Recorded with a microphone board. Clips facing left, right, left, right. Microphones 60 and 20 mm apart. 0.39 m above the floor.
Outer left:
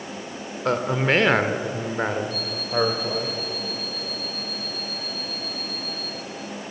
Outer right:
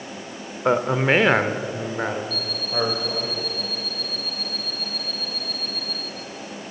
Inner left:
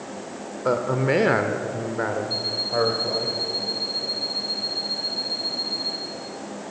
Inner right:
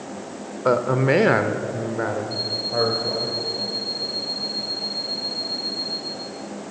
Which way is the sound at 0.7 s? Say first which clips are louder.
Outer right 3 dB, inner right 3 dB; 15° right (ahead or behind).